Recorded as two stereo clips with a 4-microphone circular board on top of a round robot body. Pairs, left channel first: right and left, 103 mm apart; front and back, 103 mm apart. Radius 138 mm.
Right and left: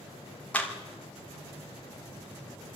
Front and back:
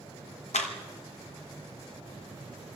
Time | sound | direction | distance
0.5 | a clap | 10° right | 2.5 m